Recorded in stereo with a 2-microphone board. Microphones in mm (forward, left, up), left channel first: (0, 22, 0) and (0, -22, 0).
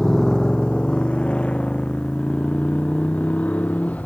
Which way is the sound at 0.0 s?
15° left (ahead or behind).